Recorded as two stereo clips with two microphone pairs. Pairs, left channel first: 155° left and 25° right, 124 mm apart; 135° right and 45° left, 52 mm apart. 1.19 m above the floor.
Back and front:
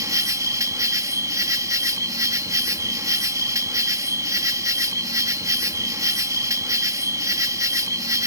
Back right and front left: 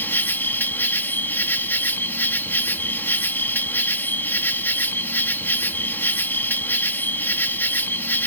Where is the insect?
90° right.